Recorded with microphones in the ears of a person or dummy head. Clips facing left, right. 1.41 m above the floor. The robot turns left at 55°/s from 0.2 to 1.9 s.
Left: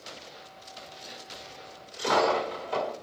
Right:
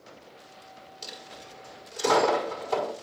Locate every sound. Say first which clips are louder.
1.0 s a dropped coin: even; 65° right (ahead or behind), 5 m